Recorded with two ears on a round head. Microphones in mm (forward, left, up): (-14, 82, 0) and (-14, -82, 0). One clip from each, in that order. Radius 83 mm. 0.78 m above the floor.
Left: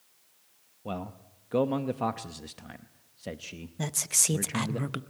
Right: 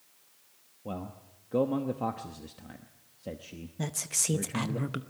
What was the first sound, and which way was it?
A man speaking, 50° left (ahead or behind).